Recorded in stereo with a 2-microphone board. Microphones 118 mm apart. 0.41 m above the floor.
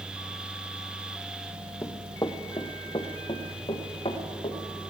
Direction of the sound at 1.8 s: 25° left (ahead or behind).